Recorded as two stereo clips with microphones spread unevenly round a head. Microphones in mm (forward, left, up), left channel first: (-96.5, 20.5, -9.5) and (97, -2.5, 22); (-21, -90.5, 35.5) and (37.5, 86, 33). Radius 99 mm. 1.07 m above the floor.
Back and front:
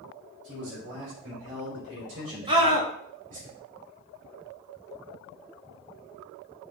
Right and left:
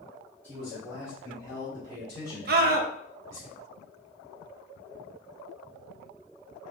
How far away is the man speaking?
About 2 m.